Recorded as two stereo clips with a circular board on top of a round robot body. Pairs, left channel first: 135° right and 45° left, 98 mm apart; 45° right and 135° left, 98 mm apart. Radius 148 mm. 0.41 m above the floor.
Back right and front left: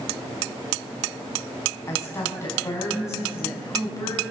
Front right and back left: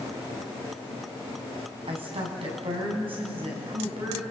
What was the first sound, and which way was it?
A woman speaking, 160° left.